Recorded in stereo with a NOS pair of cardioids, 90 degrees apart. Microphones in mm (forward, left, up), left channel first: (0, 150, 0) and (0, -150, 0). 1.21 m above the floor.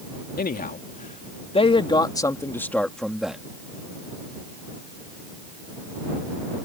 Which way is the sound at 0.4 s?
30° left.